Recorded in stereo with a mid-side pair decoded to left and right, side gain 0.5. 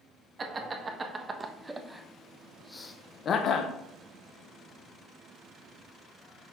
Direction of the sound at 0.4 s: 30° right.